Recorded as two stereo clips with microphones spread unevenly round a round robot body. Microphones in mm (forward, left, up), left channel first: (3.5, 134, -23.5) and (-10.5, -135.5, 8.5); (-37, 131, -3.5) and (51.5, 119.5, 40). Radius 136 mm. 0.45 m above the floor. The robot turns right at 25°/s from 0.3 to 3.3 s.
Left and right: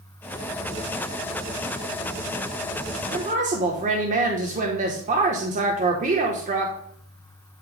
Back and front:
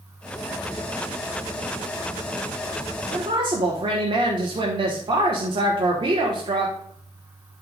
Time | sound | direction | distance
3.1 | a woman speaking | 45° right | 1.2 m